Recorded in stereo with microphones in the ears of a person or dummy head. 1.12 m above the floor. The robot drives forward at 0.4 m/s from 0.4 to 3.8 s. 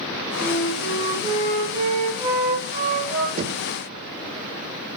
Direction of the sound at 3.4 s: 35° right (ahead or behind).